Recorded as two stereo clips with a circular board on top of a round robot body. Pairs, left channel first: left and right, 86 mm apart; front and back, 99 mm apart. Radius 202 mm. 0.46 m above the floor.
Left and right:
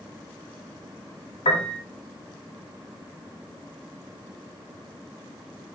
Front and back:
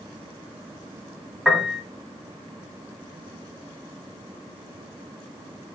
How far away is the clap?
No clap in this recording.